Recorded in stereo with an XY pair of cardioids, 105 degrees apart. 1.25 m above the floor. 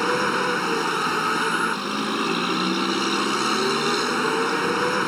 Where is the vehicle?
Straight ahead.